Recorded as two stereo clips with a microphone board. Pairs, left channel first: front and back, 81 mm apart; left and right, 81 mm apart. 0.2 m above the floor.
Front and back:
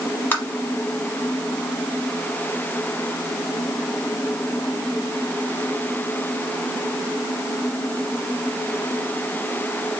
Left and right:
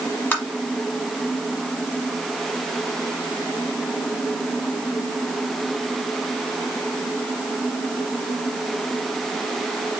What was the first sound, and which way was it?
Tapping, 45° left.